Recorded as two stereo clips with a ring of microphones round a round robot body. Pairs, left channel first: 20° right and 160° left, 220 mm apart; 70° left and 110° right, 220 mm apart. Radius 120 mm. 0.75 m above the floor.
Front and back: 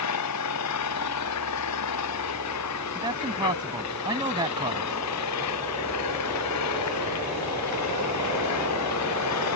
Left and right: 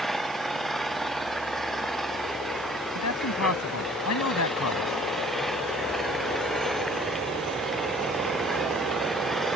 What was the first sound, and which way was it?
An engine running, 20° right.